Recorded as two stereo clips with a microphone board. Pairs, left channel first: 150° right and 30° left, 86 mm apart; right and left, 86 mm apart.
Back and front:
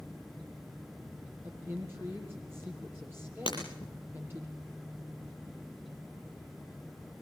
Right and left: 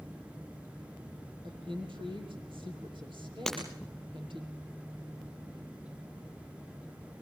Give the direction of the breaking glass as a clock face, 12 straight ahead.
6 o'clock.